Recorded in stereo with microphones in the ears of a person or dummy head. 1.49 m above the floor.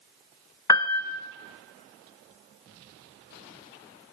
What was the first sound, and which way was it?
A piano, 20° left (ahead or behind).